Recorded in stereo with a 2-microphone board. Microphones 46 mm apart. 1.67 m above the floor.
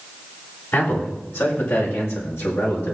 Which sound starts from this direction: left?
A man speaking, at 0.7 s.